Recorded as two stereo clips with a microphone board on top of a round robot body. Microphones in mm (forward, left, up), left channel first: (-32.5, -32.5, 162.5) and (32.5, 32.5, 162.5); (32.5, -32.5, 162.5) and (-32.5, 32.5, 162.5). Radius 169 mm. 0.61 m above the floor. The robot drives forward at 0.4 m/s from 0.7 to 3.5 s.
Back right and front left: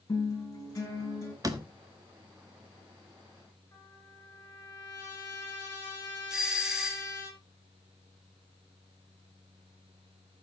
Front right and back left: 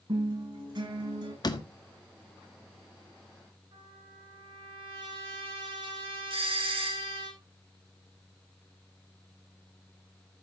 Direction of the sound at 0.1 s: 165° left.